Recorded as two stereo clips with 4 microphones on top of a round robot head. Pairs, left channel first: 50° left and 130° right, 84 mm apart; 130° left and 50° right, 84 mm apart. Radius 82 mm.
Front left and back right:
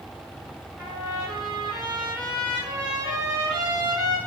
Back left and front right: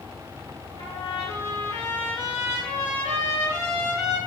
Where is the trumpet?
150° left, 3 m.